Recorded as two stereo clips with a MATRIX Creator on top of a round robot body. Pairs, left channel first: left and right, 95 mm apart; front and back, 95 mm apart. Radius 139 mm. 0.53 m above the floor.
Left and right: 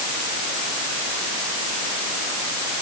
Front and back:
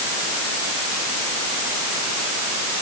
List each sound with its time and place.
Only background noise.